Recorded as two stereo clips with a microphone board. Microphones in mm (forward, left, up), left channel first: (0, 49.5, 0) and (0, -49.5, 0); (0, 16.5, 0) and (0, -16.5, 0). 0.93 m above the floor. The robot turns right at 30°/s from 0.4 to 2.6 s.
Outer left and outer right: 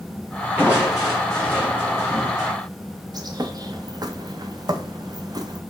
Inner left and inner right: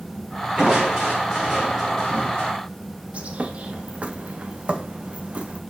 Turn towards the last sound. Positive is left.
turn(degrees=-40)  # may be behind; listen again after turning